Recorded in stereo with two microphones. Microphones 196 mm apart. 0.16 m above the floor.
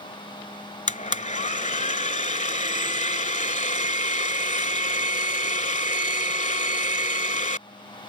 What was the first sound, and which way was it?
A blender, 40° left (ahead or behind).